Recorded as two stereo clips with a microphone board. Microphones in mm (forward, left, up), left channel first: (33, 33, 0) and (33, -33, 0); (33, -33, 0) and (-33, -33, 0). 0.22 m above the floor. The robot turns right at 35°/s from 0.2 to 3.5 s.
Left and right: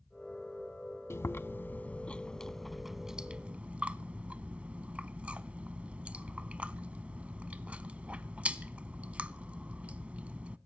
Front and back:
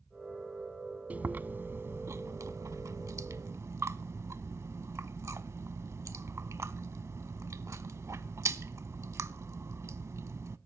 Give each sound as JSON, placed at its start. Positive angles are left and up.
{"t": 1.1, "sound": "chewing", "azimuth_deg": 120, "distance_m": 0.6}